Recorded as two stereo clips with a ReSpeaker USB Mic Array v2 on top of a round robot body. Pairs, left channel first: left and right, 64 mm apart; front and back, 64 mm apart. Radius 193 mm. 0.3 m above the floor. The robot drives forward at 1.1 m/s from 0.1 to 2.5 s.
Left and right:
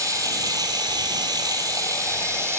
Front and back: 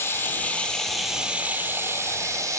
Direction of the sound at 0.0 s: 55° right.